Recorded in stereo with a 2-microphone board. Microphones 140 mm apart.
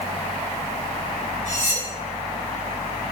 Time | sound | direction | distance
1.5 | cutlery clinking | 55° left (ahead or behind) | 7 m